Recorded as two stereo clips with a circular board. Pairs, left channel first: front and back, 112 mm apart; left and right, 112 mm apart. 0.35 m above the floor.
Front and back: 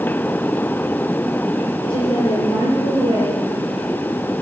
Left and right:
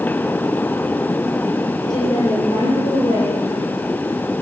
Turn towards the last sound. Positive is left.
turn(degrees=50)